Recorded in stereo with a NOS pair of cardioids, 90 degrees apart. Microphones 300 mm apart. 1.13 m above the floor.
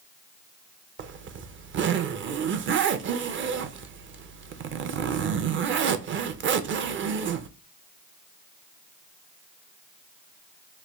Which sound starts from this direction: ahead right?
A zipper, at 1.0 s.